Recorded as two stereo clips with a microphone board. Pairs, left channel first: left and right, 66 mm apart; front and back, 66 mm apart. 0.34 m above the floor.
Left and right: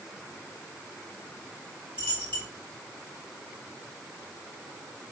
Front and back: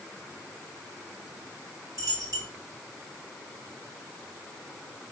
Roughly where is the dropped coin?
Behind left.